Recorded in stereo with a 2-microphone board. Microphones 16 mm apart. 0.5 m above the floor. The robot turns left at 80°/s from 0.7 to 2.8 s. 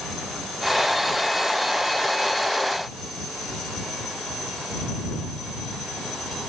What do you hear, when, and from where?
Only background noise.